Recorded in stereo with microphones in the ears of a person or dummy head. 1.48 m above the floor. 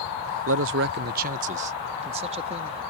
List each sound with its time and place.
0.5 s a man speaking: 65° right (ahead or behind); by 2.8 s 30° right (ahead or behind)